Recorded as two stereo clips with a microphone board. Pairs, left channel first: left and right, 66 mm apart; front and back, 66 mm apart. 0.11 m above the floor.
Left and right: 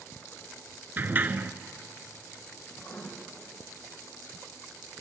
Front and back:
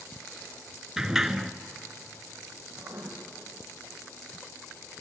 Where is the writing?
130° left, 5.5 m.